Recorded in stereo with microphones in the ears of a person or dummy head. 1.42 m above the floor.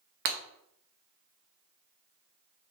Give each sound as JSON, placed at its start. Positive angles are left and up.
{"t": 0.2, "sound": "breaking glass", "side_deg": -50, "distance_m": 0.9}